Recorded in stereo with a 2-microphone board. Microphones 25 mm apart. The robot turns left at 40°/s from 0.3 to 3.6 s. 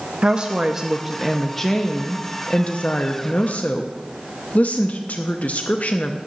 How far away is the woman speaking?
About 0.7 m.